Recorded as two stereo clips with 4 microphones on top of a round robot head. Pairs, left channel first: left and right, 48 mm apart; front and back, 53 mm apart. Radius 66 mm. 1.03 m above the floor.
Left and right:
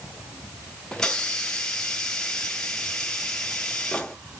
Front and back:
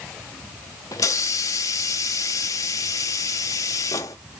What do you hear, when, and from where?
0.9 s a hiss: 10° left, 0.6 m